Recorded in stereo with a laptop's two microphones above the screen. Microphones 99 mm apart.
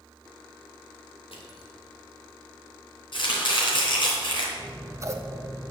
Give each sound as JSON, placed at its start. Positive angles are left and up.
{"t": 1.3, "sound": "crushing", "side_deg": 80, "distance_m": 1.9}
{"t": 3.1, "sound": "chopping", "side_deg": 60, "distance_m": 3.0}
{"t": 4.6, "sound": "scissors", "side_deg": -30, "distance_m": 0.9}